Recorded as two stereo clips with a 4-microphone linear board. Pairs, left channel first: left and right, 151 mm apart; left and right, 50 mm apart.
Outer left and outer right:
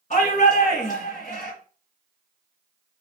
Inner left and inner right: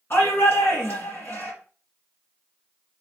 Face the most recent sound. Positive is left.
turn(degrees=50)  # may be behind; listen again after turning